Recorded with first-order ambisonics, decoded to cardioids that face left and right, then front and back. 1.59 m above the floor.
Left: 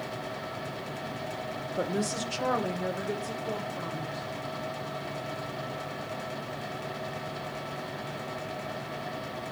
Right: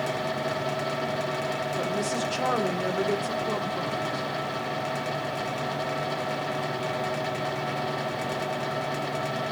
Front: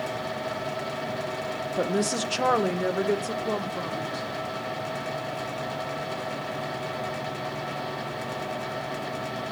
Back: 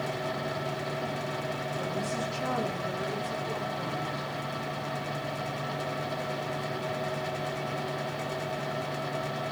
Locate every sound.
1.8 s a woman speaking: 15° left, 0.8 m; by 4.3 s 30° right, 2 m